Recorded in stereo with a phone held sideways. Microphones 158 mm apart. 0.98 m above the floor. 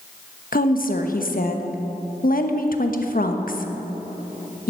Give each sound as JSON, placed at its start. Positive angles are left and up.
{"t": 0.5, "sound": "a woman speaking", "side_deg": 65, "distance_m": 1.1}